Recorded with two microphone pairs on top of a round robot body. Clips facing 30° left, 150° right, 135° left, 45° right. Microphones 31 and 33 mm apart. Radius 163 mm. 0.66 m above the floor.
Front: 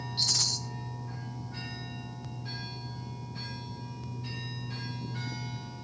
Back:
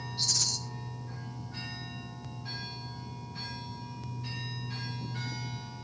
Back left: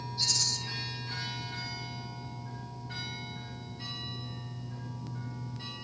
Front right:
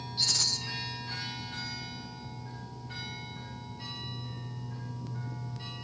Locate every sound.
0.2 s a rattle: straight ahead, 2.5 m